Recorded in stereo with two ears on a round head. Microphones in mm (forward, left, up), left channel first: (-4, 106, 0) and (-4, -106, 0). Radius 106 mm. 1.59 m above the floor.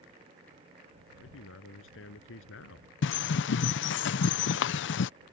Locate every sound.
1.1 s a man speaking: 60° left (ahead or behind); by 2.9 s 55° left (ahead or behind)
3.0 s a bird: 50° left (ahead or behind)